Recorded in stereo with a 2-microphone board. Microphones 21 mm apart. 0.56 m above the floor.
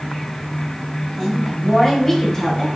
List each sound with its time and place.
1.2 s a woman speaking: 20° left (ahead or behind), 4 m; by 2.7 s 35° left (ahead or behind), 3.5 m